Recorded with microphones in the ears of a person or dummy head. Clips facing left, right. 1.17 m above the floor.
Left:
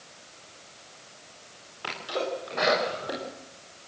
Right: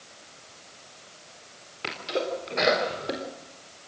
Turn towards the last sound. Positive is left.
turn(degrees=-25)  # may be behind; listen again after turning